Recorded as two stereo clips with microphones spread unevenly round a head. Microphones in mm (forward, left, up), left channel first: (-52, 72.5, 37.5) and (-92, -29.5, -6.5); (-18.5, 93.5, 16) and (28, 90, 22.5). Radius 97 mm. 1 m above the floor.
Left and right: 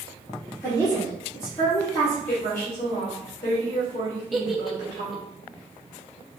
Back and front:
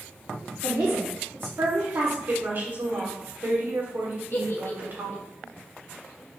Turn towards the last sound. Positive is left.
turn(degrees=160)